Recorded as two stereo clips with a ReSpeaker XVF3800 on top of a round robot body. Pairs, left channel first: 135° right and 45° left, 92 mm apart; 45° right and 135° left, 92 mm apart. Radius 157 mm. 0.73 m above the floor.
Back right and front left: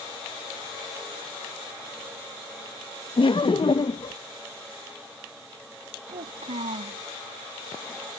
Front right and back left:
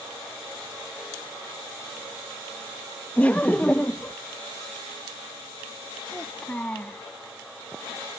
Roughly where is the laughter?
Behind right.